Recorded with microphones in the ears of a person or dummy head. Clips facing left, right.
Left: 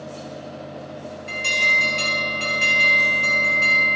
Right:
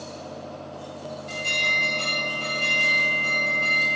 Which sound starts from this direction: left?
An alarm, at 1.3 s.